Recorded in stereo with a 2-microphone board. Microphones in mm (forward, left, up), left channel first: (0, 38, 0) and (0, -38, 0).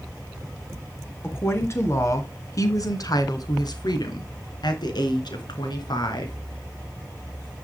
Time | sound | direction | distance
1.2 | a woman speaking | 30° left (ahead or behind) | 3 m